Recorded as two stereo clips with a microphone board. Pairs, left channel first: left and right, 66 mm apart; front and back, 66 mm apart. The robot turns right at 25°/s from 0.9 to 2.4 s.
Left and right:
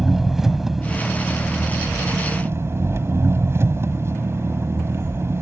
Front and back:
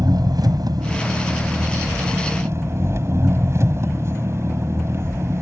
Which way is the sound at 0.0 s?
175° right.